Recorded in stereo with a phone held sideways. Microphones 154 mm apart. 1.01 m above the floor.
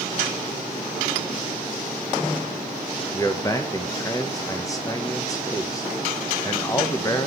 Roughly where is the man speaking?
Left.